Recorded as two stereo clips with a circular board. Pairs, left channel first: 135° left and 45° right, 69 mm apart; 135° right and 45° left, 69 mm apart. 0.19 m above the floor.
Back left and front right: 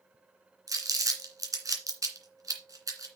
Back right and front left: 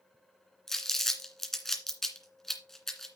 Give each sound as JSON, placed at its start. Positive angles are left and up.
{"t": 0.7, "sound": "crumpling", "azimuth_deg": -50, "distance_m": 2.0}